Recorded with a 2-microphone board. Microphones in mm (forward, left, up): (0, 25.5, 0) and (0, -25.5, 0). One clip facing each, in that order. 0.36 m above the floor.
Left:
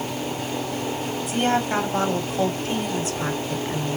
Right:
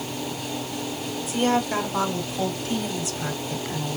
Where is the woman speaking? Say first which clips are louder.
Even; 60° left (ahead or behind), 2.5 m; by 4.0 s 35° left (ahead or behind), 1.5 m.